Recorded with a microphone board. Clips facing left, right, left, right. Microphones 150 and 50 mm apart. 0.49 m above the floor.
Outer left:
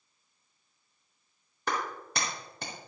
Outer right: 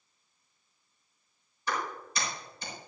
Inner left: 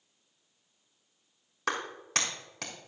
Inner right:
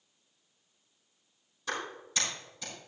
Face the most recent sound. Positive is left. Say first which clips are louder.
# outer left 1 dB, inner left 4 dB
turn(degrees=70)  # may be behind; listen again after turning